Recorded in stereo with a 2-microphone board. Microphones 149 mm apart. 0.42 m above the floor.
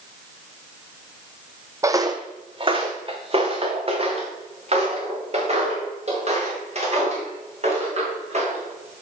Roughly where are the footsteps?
Centre.